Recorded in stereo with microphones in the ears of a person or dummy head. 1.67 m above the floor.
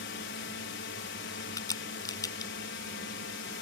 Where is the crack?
20° left (ahead or behind).